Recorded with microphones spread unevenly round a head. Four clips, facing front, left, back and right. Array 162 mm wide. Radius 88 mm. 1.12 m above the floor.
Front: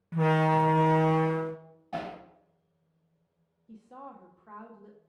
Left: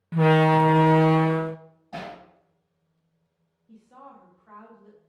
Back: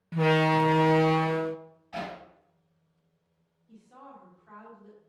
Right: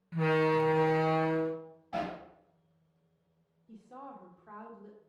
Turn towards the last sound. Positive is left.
turn(degrees=-25)